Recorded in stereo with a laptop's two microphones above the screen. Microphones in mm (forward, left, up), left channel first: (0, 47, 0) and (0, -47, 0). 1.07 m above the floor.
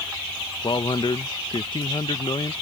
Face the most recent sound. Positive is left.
turn(degrees=55)  # may be behind; listen again after turning